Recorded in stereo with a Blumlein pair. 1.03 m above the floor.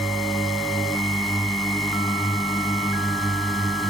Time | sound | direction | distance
0.0 | a drone | 5° right | ?